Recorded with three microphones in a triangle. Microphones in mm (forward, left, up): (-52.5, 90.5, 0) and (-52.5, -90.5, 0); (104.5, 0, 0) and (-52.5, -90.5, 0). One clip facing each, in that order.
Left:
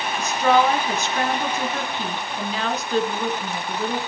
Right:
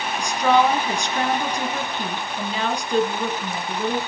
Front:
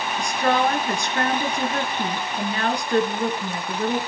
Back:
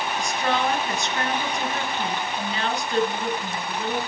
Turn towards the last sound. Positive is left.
turn(degrees=0)